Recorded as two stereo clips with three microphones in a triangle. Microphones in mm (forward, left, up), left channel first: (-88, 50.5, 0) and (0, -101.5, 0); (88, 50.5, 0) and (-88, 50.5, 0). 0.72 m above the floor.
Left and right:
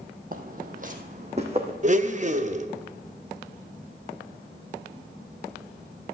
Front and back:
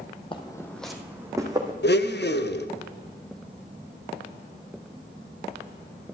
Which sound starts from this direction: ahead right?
Footsteps, at 0.3 s.